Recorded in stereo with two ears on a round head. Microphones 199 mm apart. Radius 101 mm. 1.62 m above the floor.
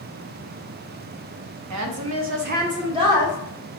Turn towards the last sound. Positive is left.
turn(degrees=-10)  # may be behind; listen again after turning